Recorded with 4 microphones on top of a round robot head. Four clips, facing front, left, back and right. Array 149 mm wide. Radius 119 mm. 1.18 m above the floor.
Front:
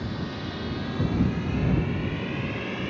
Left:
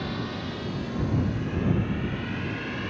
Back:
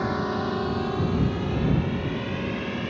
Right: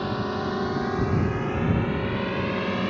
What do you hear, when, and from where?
0.0 s a drone: 150° right; by 2.9 s 100° right